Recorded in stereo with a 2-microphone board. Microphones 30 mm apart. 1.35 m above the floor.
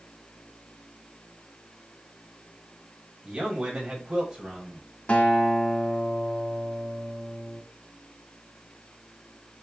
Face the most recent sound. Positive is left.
turn(degrees=45)  # may be behind; listen again after turning